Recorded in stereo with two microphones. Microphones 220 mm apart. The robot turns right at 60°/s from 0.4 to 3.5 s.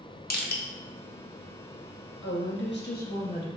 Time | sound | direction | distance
0.3 | crushing | 45° left (ahead or behind) | 0.5 m
2.2 | a woman speaking | 80° left | 0.7 m